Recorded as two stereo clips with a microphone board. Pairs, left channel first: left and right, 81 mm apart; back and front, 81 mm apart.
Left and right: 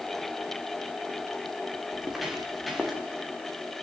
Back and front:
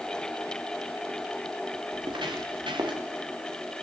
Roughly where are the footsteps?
Ahead.